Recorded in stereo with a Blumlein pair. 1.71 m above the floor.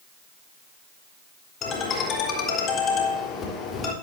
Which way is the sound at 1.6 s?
20° left.